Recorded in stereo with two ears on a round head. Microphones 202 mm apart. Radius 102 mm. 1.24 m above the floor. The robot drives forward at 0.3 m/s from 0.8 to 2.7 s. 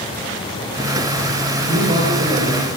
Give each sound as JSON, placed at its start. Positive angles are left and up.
{"t": 1.6, "sound": "a man speaking", "side_deg": -35, "distance_m": 5.0}